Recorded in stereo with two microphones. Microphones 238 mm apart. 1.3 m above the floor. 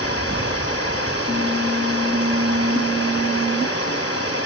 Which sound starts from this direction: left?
Running water, at 0.0 s.